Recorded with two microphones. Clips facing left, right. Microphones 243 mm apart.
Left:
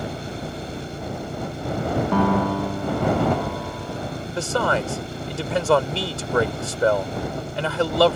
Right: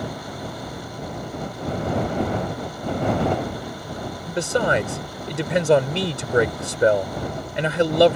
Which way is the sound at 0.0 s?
25° left (ahead or behind).